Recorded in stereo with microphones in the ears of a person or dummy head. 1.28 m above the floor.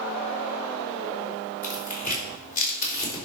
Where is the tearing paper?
55° left (ahead or behind), 3.5 m.